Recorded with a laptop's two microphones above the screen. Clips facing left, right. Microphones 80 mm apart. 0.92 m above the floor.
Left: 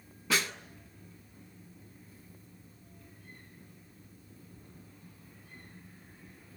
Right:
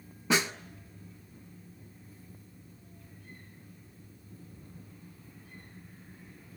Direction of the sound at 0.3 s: 25° right (ahead or behind).